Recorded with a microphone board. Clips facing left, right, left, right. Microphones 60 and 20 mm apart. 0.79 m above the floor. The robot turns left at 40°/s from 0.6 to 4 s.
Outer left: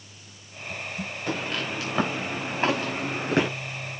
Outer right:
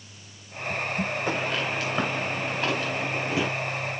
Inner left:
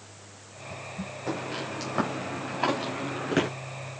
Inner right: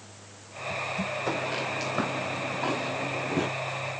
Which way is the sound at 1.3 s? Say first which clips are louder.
Outer left 2 dB, even; 15° right (ahead or behind).